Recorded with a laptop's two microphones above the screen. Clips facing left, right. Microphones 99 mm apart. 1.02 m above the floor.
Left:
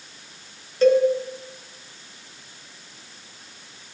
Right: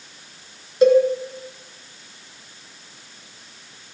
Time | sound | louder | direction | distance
0.8 | a cowbell | right 3 dB | 15° right (ahead or behind) | 3 m